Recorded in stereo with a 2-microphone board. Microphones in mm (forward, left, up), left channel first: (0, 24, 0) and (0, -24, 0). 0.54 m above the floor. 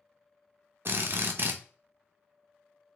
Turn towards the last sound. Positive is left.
turn(degrees=-55)  # may be behind; listen again after turning